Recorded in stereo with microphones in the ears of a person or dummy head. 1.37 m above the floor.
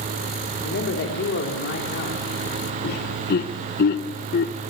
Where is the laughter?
60° left (ahead or behind), 1.3 m.